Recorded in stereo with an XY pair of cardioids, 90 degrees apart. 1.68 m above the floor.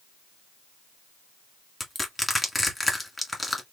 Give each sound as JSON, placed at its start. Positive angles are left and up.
{"t": 1.8, "sound": "crushing", "azimuth_deg": 15, "distance_m": 2.0}